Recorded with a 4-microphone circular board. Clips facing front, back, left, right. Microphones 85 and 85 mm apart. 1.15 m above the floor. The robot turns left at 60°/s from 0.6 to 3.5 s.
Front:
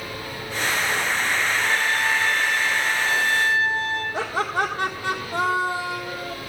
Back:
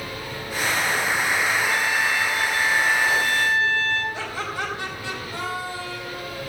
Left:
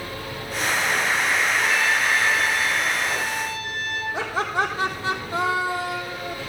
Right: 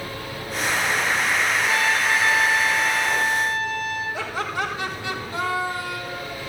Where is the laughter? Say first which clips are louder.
Front 5 dB, left 3 dB; 50° left, 1.8 m.